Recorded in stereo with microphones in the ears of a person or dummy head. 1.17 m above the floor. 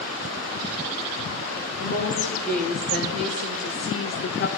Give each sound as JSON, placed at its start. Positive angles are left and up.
{"t": 1.8, "sound": "a woman speaking", "side_deg": 60, "distance_m": 3.5}